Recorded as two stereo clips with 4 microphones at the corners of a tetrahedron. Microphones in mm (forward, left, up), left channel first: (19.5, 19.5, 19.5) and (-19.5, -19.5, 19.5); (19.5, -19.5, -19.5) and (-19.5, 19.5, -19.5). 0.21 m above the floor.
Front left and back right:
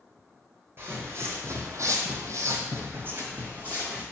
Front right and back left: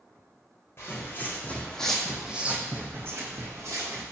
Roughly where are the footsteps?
Right.